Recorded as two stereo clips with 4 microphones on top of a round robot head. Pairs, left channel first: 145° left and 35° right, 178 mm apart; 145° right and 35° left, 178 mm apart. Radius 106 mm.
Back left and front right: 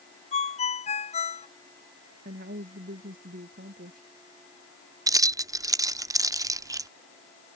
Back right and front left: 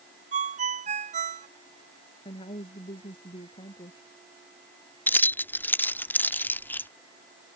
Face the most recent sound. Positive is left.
turn(degrees=-80)